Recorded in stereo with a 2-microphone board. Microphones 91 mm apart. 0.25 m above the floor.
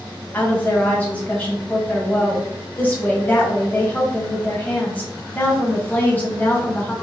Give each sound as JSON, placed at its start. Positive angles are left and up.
{"t": 0.3, "sound": "a woman speaking", "side_deg": 20, "distance_m": 1.2}